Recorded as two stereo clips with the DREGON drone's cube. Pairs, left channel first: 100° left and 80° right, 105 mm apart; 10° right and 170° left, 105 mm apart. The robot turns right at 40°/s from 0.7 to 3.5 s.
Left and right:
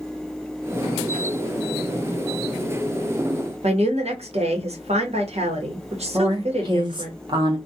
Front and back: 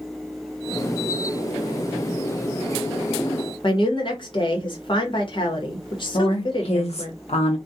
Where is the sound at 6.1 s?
30° right, 0.7 m.